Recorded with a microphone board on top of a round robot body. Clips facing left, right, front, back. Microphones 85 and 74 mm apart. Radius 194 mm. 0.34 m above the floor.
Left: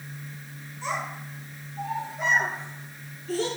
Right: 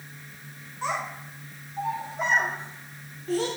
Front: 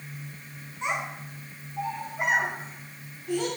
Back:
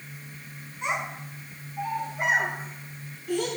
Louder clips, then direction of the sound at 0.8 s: Right 1 dB, even; 60° right.